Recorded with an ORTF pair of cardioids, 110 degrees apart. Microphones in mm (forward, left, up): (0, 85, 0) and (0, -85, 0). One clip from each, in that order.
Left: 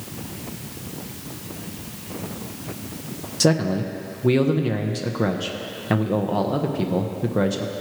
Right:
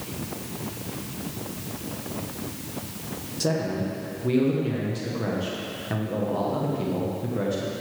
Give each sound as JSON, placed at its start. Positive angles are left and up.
{"t": 3.4, "sound": "a man speaking", "azimuth_deg": 40, "distance_m": 1.0}